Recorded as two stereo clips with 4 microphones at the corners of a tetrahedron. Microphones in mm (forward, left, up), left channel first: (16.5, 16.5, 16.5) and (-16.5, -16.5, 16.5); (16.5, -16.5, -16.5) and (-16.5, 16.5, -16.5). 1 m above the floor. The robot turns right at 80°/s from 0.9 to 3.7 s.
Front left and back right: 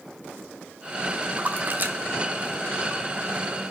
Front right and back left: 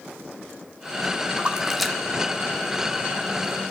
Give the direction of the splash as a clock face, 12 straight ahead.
6 o'clock.